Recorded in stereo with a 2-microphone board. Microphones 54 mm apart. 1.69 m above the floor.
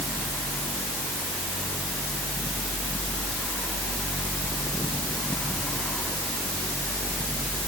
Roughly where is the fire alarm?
I don't hear a fire alarm.